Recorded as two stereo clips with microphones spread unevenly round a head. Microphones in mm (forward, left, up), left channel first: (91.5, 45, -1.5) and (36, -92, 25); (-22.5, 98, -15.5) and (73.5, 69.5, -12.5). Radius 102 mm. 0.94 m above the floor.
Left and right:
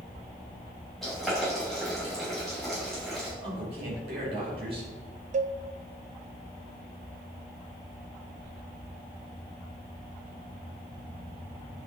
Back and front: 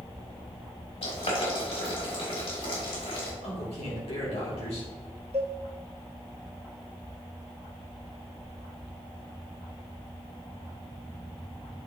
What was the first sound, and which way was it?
Boiling, 155° left.